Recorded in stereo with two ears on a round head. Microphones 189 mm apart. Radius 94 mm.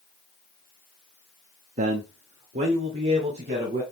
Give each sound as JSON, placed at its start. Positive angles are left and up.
{"t": 1.8, "sound": "a man speaking", "side_deg": -35, "distance_m": 0.8}